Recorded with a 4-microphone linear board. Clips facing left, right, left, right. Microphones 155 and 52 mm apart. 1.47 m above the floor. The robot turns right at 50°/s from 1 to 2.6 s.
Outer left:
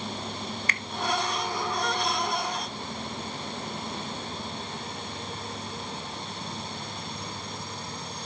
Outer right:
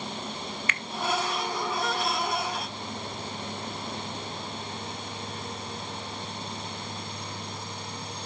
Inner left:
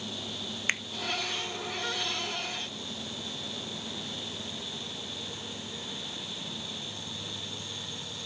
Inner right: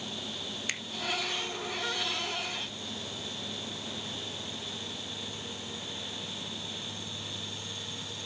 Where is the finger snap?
40° left (ahead or behind), 0.8 m.